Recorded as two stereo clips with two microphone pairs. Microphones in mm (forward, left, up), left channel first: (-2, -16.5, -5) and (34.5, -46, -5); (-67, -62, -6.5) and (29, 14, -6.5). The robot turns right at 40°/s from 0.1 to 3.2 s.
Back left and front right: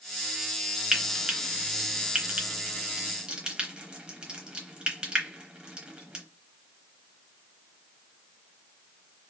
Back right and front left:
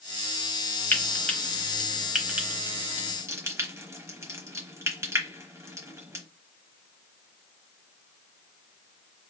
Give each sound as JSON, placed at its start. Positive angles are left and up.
{"t": 0.9, "sound": "frying", "azimuth_deg": -95, "distance_m": 0.9}